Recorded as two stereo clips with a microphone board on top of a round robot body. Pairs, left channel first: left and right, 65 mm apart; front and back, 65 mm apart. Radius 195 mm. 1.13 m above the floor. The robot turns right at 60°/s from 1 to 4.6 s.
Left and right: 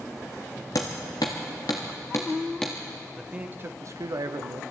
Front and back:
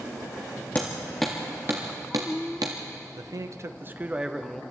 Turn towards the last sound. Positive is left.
turn(degrees=-80)